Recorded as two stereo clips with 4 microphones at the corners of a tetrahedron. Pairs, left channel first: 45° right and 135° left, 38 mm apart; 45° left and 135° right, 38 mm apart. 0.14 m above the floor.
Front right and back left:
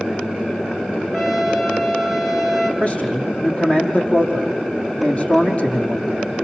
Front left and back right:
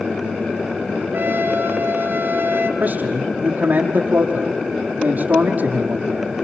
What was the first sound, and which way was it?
A trumpet, 125° right.